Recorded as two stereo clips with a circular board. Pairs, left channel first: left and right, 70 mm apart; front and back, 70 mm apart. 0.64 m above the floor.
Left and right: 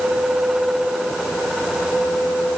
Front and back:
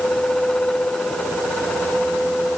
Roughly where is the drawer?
I don't hear a drawer.